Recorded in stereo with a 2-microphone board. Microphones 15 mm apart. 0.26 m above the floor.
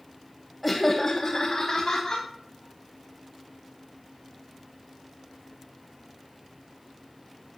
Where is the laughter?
Centre (ahead or behind), 1.1 m; by 2.2 s 50° left (ahead or behind), 2.5 m.